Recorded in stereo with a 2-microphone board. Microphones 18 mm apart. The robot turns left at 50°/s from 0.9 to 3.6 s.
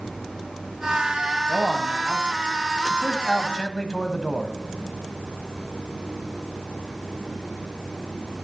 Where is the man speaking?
175° right, 1.3 m; by 4.5 s 75° left, 1.3 m.